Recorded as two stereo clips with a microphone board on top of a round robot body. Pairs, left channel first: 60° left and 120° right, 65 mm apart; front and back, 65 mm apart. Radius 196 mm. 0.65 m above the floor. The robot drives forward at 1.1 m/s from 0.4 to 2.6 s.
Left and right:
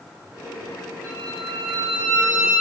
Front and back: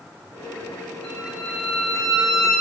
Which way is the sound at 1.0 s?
85° right.